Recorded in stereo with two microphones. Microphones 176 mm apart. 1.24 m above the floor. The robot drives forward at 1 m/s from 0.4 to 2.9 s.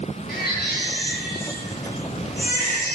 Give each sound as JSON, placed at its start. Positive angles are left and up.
{"t": 0.3, "sound": "a baby crying", "side_deg": 65, "distance_m": 9.0}